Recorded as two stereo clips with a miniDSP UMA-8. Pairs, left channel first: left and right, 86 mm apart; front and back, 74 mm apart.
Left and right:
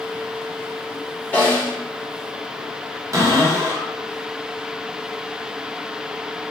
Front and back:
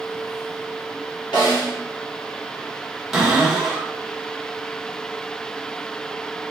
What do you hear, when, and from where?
1.3 s a snare drum: 20° left, 1.5 m
3.1 s a cupboard door: 95° right, 0.9 m